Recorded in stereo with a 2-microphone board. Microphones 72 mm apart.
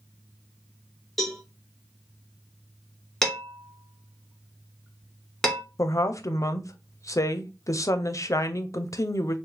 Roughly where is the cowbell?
Centre.